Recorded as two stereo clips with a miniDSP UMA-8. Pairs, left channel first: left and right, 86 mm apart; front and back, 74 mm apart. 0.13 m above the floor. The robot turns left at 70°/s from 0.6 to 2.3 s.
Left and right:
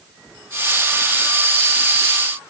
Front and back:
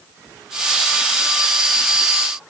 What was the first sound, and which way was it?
Only background noise.